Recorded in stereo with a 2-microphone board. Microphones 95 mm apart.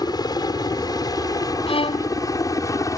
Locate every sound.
0.0 s a helicopter: 45° left (ahead or behind); by 3.0 s 35° left (ahead or behind)
1.7 s a violin: 90° left